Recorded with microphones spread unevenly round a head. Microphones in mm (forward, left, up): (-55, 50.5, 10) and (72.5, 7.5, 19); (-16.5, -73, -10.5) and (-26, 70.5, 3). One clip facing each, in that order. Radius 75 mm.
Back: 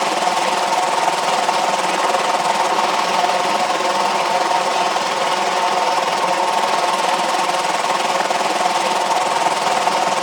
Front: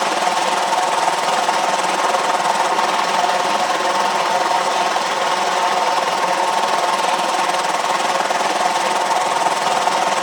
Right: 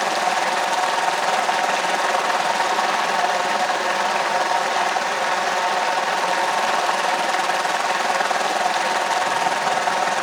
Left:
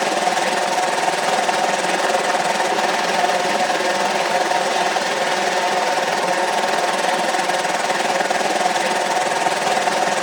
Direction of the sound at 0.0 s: 80° left.